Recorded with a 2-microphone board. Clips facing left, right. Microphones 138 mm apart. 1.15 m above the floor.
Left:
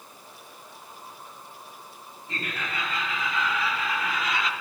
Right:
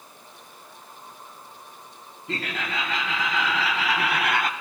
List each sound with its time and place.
2.3 s laughter: 75° right (ahead or behind), 1.3 m; by 4.5 s 45° right (ahead or behind), 0.5 m